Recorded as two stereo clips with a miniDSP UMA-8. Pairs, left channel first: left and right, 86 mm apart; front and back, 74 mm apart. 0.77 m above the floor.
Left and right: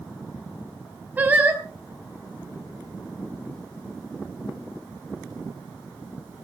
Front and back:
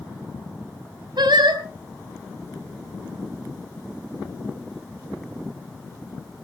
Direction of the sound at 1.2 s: 160° right.